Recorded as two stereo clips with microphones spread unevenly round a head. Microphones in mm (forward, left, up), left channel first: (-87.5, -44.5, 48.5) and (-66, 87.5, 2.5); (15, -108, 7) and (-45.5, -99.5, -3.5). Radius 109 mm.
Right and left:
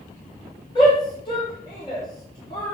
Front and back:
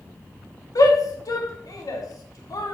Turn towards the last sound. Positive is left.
turn(degrees=-30)